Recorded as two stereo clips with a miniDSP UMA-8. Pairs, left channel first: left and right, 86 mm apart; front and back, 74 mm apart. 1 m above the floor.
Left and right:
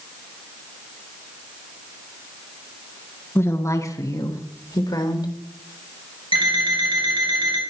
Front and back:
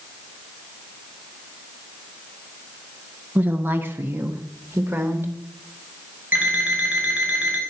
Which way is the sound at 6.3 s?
110° right.